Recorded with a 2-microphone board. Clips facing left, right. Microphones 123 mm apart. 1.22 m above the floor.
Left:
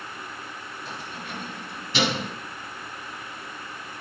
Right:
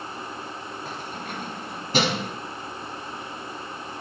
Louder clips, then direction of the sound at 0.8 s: Right 1 dB; 45° right (ahead or behind).